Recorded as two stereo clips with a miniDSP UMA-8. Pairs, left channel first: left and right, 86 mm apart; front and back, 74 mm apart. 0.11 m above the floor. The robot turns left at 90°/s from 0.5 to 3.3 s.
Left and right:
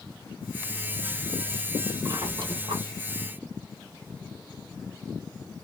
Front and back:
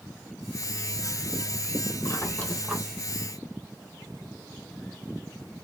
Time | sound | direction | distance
2.0 | a squeak | 35° right | 1.2 m